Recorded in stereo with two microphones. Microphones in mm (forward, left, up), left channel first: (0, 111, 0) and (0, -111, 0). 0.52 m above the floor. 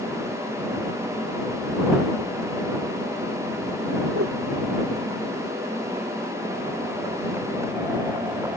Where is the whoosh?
80° right.